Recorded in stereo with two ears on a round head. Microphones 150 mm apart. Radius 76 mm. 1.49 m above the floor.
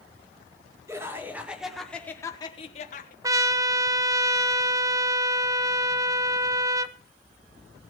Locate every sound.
0.9 s laughter: 20° right (ahead or behind), 2.5 m; by 3.1 s 55° left (ahead or behind), 1.5 m
3.2 s a trumpet: 20° right (ahead or behind), 0.7 m